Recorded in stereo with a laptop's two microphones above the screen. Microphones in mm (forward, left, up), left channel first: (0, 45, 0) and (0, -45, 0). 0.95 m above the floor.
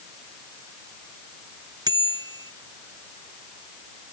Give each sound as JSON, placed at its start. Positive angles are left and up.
{"t": 1.9, "sound": "a bicycle bell", "side_deg": -45}